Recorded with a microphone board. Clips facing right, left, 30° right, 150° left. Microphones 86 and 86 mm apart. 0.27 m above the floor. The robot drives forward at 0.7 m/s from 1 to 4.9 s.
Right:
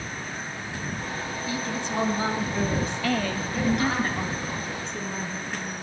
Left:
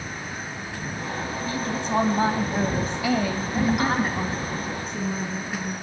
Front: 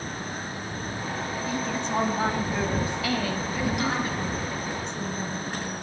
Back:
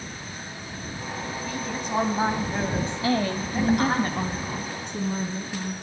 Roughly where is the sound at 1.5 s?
Ahead left.